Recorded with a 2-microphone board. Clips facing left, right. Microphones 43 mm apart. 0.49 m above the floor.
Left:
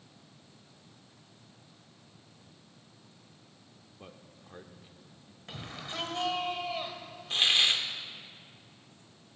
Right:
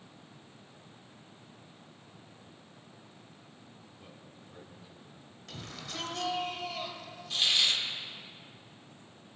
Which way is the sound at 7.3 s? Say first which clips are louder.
Left 2 dB; 40° left (ahead or behind).